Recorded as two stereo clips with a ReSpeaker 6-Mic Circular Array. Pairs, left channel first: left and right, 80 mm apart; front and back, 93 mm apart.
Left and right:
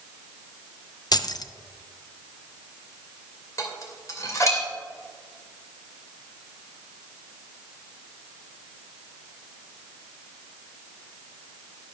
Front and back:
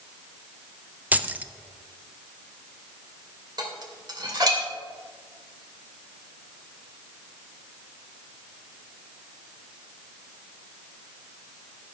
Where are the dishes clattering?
140° left, 2 m.